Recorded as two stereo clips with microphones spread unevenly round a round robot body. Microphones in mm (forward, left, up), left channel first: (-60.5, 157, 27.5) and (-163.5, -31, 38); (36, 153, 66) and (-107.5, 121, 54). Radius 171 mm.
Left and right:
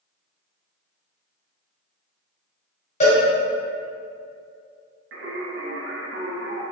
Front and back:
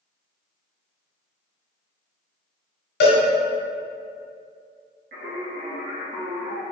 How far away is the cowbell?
About 0.6 m.